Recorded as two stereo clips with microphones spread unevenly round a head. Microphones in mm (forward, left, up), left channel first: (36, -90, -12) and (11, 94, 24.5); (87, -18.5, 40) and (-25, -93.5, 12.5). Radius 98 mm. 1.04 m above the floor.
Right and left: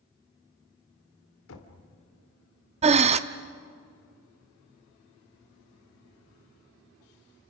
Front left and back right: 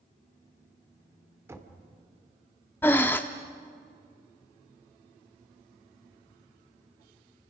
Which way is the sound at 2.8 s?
95° left.